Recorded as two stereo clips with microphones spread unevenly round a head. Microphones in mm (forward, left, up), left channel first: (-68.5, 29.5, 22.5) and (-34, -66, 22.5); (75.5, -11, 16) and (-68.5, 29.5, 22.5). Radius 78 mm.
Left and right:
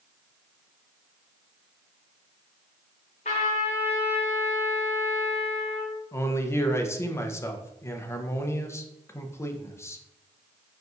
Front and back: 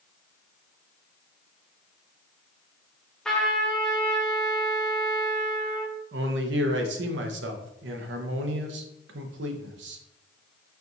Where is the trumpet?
70° left, 0.6 m.